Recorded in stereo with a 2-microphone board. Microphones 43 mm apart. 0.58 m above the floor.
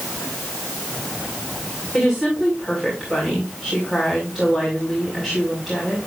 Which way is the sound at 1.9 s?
Centre (ahead or behind).